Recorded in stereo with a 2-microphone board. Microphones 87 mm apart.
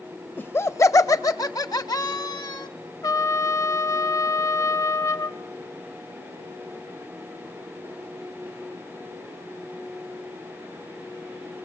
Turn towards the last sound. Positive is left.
turn(degrees=45)  # may be behind; listen again after turning